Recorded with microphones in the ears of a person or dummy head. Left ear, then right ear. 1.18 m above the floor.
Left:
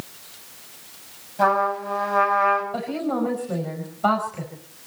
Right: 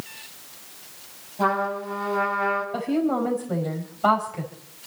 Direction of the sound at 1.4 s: 70° left (ahead or behind).